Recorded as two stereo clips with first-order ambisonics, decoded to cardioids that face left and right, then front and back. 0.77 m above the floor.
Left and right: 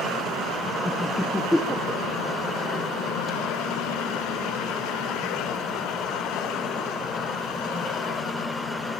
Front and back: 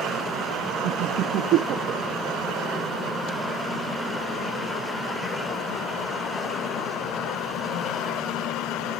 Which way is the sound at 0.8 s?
175° left.